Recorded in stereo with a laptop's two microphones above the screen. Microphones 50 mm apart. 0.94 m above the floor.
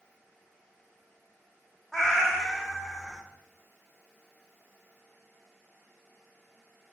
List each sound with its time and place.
1.9 s a cat meowing: 10° left (ahead or behind), 0.6 m